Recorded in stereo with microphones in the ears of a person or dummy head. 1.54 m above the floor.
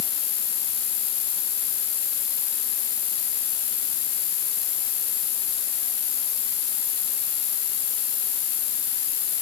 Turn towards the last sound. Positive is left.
turn(degrees=60)  # may be behind; listen again after turning